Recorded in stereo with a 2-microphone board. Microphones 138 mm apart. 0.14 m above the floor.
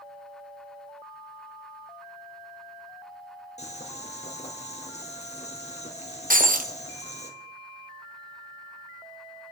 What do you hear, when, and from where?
3.6 s boiling: 55° left (ahead or behind), 2.5 m
6.3 s breaking glass: 85° right, 1.4 m